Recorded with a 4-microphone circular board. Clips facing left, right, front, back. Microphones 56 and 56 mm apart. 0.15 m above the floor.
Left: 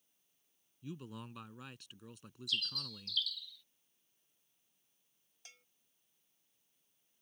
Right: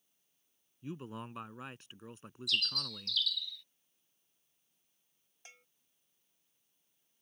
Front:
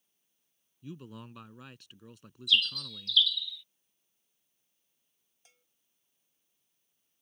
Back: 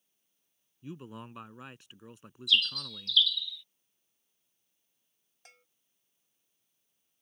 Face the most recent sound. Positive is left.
turn(degrees=-155)